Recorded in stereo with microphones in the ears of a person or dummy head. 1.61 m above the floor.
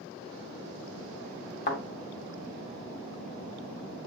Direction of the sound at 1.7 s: 45° left (ahead or behind).